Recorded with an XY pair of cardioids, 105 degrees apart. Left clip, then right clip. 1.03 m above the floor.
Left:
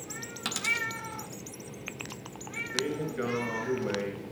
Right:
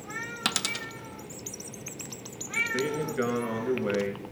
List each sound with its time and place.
0.5 s a dropped coin: 45° right, 1.2 m
2.6 s a man speaking: 30° right, 6.5 m